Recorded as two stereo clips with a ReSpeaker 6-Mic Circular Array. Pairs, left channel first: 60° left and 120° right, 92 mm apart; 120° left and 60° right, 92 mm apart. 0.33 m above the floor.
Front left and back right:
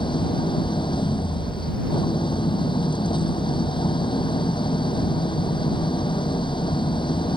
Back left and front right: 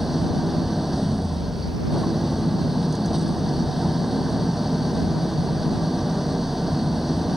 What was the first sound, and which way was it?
An engine running, 30° left.